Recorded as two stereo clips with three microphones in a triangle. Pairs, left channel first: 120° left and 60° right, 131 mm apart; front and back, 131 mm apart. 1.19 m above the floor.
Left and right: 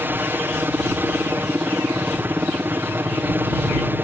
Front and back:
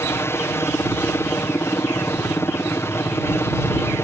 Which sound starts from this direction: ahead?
A helicopter, at 0.0 s.